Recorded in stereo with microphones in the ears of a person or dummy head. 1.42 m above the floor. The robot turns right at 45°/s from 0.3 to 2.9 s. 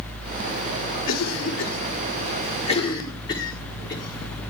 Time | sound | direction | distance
1.1 | a cough | 80° left | 4.5 m